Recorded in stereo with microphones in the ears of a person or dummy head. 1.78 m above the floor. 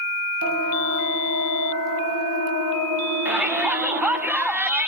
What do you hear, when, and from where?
0.4 s a siren: 80° right, 3 m; by 4.2 s 85° right, 6 m
3.2 s a shout: 10° right (ahead or behind), 0.9 m